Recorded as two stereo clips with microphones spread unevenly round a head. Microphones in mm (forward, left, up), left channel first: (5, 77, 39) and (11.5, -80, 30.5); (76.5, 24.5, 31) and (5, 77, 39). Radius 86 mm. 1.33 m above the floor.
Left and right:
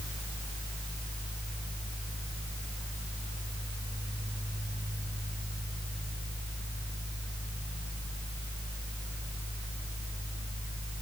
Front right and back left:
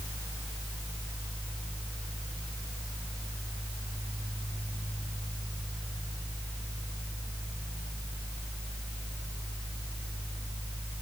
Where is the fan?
85° left, 1.8 m.